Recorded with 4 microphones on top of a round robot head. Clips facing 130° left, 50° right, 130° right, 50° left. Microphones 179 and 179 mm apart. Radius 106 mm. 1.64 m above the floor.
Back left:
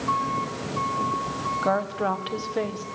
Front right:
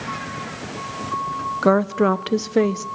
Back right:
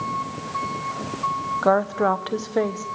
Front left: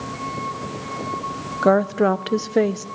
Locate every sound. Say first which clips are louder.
1.6 s a woman speaking: front right 8 dB, front left 3 dB; 15° right, 0.8 m